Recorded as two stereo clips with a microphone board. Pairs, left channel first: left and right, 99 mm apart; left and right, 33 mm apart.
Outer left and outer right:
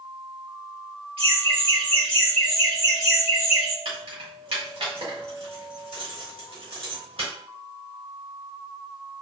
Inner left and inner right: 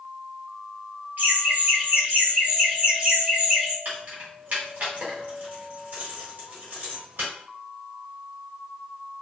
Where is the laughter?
60° right (ahead or behind), 1.6 m; by 3.8 s 25° right (ahead or behind), 1.7 m.